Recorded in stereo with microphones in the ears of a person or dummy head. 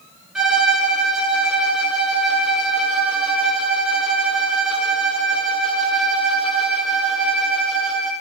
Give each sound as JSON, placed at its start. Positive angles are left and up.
{"t": 0.3, "sound": "a violin", "side_deg": 0, "distance_m": 1.5}